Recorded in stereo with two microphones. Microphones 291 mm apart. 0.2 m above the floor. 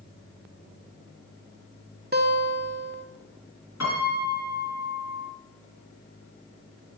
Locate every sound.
2.1 s a guitar: 35° right (ahead or behind), 0.5 m
3.8 s a piano: 65° left (ahead or behind), 2.5 m